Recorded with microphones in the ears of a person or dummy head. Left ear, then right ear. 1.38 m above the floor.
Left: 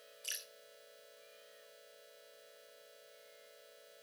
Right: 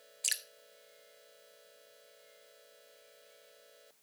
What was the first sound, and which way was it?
Dripping, 35° right (ahead or behind).